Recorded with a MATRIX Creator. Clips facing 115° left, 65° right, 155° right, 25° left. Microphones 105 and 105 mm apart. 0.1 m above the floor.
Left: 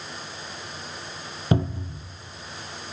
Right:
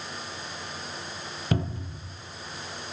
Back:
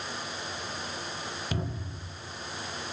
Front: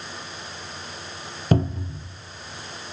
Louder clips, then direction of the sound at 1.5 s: Left 5 dB, front 17 dB; 50° left.